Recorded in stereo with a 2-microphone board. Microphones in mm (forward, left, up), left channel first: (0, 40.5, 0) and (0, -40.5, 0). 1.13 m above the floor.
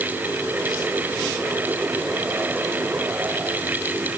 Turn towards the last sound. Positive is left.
No sound to turn to.